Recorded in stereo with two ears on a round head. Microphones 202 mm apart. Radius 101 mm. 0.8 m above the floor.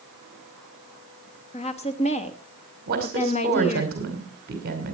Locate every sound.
1.5 s a woman speaking: 30° left (ahead or behind), 1.2 m
2.9 s a woman speaking: 45° right (ahead or behind), 2.5 m